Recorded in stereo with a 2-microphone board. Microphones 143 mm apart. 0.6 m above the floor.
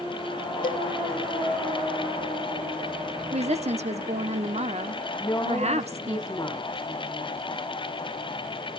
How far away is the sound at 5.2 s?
About 2.5 m.